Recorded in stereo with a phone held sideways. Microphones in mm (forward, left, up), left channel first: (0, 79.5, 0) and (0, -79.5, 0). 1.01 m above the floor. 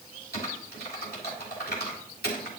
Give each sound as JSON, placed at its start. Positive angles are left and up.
{"t": 0.3, "sound": "typing on a keyboard", "side_deg": 85, "distance_m": 2.5}